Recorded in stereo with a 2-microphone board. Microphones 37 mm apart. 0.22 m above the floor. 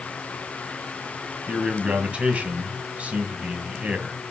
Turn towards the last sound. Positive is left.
turn(degrees=-35)  # may be behind; listen again after turning